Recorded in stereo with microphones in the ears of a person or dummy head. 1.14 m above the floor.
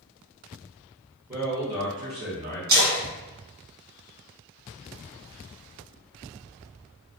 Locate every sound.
1.3 s a man speaking: 10° right (ahead or behind), 1.2 m; by 2.6 s 35° right (ahead or behind), 1.3 m
2.7 s a splash: 80° right, 1.3 m